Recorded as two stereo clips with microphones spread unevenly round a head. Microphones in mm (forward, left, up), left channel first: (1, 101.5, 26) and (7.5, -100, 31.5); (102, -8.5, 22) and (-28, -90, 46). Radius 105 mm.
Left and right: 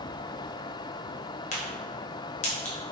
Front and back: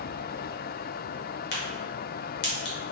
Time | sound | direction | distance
1.5 | a crack | 35° left | 1.0 m